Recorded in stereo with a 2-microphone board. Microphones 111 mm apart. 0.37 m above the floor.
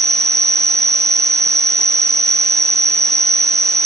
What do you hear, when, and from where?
0.0 s an insect: 80° right